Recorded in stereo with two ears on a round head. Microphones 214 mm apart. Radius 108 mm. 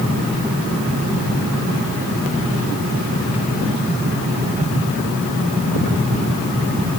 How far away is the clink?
I don't hear a clink.